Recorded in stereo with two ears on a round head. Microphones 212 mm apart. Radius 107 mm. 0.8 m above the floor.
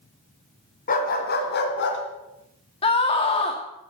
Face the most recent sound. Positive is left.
turn(degrees=25)  # may be behind; listen again after turning